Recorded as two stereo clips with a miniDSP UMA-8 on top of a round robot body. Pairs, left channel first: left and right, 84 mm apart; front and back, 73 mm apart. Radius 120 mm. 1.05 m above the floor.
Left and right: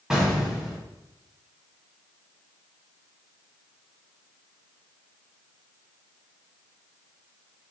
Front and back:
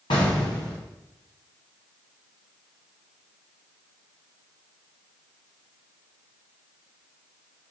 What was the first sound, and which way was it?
An explosion, 10° right.